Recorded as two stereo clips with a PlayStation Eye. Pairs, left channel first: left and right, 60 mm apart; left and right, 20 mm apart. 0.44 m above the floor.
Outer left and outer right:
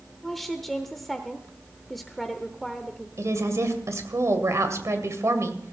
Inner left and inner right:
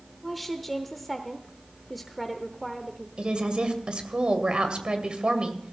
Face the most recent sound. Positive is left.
turn(degrees=-60)  # may be behind; listen again after turning